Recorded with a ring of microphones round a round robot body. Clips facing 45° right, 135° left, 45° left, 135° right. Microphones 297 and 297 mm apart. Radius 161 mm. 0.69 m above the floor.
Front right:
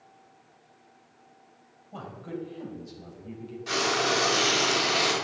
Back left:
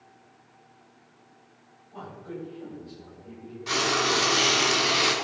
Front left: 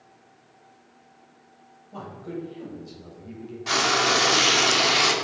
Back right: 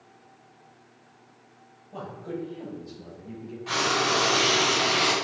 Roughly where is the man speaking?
Ahead right.